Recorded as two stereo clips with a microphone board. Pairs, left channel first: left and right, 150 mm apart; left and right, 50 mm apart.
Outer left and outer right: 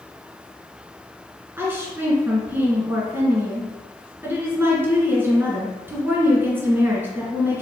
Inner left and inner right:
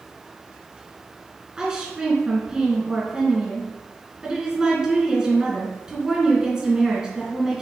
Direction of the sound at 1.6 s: 15° right (ahead or behind).